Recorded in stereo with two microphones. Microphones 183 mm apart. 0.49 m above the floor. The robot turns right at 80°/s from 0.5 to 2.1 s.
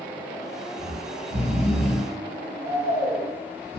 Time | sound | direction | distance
0.8 | snoring | 100° right | 1.6 m